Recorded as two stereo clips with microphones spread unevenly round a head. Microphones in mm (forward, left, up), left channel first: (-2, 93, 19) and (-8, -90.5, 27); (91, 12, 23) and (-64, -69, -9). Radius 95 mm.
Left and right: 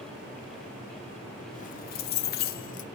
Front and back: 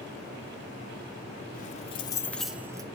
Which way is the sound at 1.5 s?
40° left.